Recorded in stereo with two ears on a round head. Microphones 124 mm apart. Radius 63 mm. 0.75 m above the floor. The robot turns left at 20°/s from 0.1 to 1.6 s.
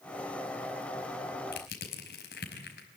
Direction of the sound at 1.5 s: 80° left.